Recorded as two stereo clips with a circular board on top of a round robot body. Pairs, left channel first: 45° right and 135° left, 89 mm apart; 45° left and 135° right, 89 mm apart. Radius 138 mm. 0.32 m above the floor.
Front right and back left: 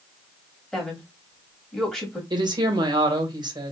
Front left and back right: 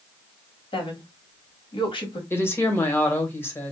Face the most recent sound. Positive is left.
turn(degrees=105)